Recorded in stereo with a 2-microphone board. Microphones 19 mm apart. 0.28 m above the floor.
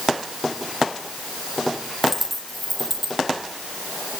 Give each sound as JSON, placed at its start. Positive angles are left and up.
{"t": 2.0, "sound": "a dropped coin", "side_deg": -5, "distance_m": 5.5}